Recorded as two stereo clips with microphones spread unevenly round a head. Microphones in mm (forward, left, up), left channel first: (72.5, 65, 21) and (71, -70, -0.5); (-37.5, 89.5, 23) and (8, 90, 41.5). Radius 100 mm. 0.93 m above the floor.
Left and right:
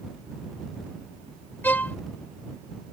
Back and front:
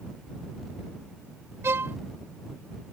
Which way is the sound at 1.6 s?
15° left.